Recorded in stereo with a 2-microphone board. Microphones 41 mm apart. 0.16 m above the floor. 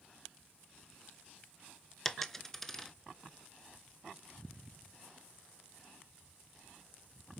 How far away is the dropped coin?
About 0.5 m.